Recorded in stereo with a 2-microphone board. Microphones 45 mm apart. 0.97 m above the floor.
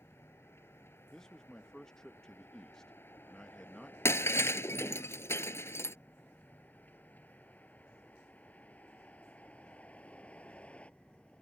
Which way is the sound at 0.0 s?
60° left (ahead or behind).